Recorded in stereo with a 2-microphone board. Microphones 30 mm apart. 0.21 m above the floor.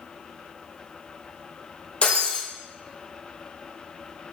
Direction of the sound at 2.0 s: 30° left (ahead or behind).